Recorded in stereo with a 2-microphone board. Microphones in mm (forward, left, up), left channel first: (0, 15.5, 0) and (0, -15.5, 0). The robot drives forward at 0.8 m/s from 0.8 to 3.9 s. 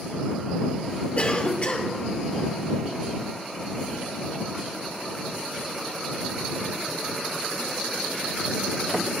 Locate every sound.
1.2 s a cough: 40° left (ahead or behind), 1.5 m